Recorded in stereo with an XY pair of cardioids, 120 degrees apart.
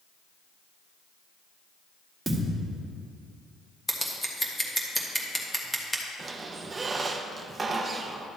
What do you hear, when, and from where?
2.3 s a thud: 15° right, 1.6 m
3.9 s scissors: 5° left, 1.4 m
6.2 s a squeak: 25° right, 0.8 m